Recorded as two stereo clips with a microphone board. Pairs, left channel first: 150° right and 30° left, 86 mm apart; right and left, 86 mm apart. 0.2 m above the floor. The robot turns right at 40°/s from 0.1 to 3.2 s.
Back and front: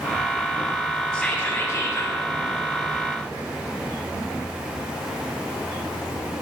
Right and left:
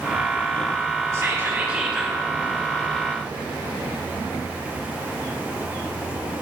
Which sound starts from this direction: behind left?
Whispering, at 1.1 s.